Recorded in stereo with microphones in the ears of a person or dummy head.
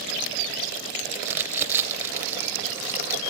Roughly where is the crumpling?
Centre.